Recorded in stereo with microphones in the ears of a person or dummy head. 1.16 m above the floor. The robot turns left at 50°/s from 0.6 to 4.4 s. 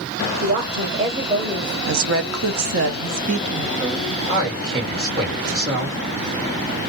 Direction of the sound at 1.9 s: 65° right.